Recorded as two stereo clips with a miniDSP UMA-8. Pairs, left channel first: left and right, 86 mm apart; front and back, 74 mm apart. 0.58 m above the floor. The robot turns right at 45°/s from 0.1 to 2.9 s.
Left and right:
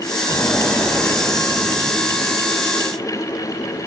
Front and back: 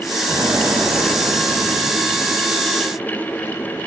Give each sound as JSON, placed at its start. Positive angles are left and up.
{"t": 0.3, "sound": "an explosion", "azimuth_deg": 145, "distance_m": 3.5}